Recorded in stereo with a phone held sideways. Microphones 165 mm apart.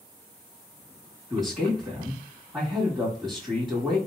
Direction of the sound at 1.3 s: Centre (ahead or behind).